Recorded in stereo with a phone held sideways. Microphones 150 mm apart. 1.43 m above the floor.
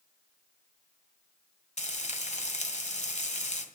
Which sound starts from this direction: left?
Frying, at 1.8 s.